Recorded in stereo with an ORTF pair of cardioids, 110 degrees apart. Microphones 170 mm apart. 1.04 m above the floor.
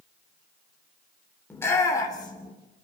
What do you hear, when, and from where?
1.5 s a shout: 10° left, 3 m; by 2.5 s 30° left, 2.5 m